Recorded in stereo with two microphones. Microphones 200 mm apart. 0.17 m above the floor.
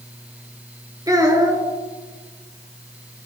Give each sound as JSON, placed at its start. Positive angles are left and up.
{"t": 1.1, "sound": "a child speaking", "side_deg": -15, "distance_m": 1.9}